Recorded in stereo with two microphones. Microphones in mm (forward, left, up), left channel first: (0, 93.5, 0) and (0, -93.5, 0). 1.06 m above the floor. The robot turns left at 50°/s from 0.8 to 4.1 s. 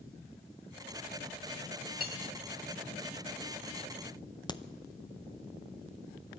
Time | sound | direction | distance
2.0 | cutlery clinking | 55° right (ahead or behind) | 1.4 m
4.5 | a crack | 20° left (ahead or behind) | 0.6 m